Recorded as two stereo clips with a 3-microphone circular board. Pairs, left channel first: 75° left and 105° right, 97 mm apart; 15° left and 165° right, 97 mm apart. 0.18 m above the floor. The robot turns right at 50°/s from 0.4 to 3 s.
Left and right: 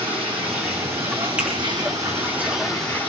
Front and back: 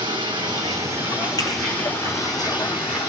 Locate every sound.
0.0 s running water: 130° right, 3.5 m; by 3.1 s straight ahead, 3.5 m
1.4 s a finger snap: 30° right, 4.5 m; by 1.5 s 25° right, 4.5 m